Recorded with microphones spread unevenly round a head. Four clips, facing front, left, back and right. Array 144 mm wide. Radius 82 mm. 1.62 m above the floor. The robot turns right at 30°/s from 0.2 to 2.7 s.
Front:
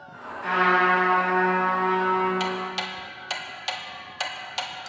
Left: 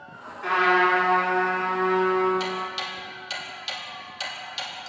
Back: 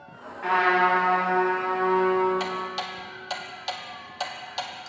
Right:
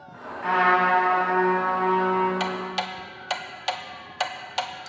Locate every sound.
0.4 s a trumpet: 145° right, 8 m; by 2.3 s 85° right, 8 m
2.4 s ticking: 110° right, 1.1 m; by 4.9 s 100° right, 1.1 m